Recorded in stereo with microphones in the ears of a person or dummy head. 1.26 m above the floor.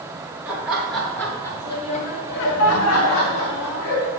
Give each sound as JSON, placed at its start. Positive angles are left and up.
{"t": 0.5, "sound": "laughter", "side_deg": -5, "distance_m": 2.5}